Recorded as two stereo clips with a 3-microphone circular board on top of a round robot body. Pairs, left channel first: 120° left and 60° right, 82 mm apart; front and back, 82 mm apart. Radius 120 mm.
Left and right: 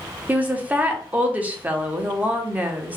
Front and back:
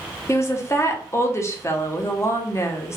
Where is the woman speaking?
5° right, 0.9 m.